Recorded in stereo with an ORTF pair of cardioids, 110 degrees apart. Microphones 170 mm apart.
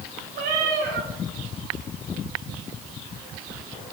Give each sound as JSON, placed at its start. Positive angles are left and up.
{"t": 0.3, "sound": "a cat meowing", "azimuth_deg": -70, "distance_m": 1.8}